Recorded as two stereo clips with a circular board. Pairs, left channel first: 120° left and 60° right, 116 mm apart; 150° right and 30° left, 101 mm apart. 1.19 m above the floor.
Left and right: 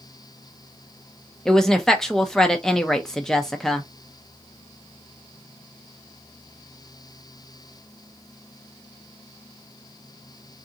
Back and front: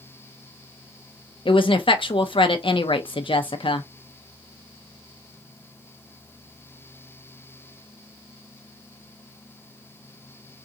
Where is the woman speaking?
155° right, 0.5 m.